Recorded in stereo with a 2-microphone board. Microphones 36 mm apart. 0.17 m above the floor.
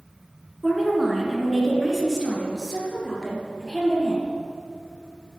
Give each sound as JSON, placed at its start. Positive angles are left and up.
{"t": 0.6, "sound": "a woman speaking", "side_deg": -5, "distance_m": 1.8}